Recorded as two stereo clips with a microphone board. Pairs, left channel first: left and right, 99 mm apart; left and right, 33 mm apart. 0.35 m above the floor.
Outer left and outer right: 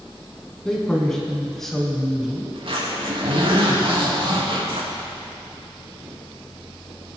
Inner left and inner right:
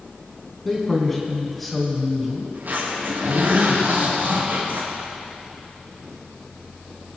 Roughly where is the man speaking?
Centre.